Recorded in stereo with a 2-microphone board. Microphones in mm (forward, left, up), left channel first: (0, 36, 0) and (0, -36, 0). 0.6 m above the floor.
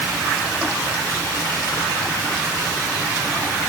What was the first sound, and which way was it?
Only background noise.